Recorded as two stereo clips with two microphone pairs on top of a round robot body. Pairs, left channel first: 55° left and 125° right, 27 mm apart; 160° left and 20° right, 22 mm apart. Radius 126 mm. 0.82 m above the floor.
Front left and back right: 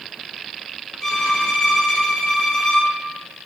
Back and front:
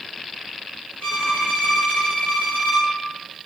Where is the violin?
145° left, 3 m.